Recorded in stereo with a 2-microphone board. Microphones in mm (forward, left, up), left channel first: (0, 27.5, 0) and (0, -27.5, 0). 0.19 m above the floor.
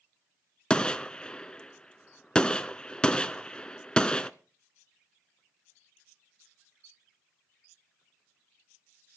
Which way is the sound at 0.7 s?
20° left (ahead or behind).